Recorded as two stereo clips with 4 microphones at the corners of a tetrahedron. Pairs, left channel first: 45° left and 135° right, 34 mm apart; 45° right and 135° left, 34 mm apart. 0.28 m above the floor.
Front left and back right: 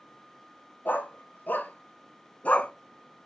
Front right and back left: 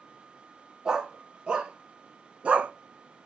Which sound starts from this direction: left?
A dog barking, at 0.8 s.